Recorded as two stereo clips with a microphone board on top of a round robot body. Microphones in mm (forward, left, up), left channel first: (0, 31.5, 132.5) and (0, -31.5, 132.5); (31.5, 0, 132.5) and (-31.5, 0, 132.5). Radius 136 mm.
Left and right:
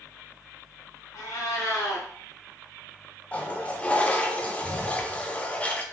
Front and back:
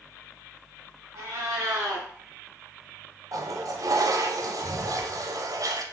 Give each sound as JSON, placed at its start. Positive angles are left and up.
{"t": 1.1, "sound": "a cat meowing", "azimuth_deg": 135, "distance_m": 0.9}
{"t": 3.3, "sound": "a toilet flushing", "azimuth_deg": 160, "distance_m": 0.6}